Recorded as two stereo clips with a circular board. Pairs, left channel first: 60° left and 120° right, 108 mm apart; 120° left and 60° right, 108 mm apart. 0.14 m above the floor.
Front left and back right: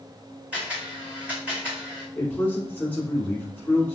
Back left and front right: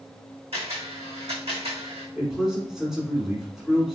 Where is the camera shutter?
40° right, 1.9 m.